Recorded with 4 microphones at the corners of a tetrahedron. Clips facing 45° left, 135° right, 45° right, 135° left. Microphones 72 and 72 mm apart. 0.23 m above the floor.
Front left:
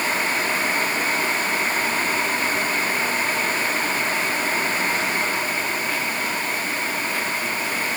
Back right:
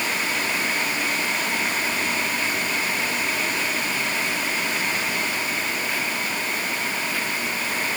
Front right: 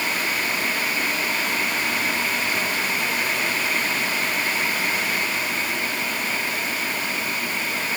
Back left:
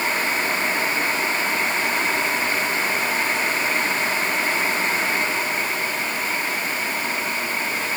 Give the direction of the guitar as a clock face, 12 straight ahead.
No guitar in this recording.